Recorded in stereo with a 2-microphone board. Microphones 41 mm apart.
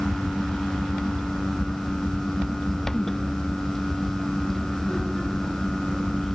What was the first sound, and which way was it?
Only background noise.